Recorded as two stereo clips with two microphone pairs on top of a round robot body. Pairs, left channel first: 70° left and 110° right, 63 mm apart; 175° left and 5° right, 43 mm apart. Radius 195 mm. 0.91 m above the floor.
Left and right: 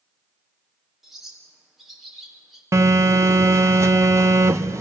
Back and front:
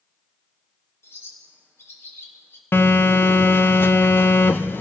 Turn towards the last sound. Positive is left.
turn(degrees=-150)